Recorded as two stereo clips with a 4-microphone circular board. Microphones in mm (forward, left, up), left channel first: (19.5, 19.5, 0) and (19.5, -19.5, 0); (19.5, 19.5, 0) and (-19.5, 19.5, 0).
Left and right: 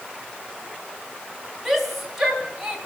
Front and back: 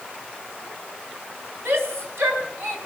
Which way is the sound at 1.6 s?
Straight behind.